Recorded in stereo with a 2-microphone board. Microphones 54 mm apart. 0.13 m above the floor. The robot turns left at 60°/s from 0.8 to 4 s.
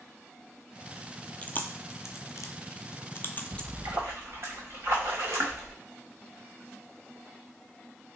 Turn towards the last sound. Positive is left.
turn(degrees=-50)  # may be behind; listen again after turning